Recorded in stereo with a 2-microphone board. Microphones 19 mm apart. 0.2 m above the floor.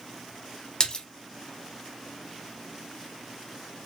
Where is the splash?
35° left (ahead or behind), 0.8 m.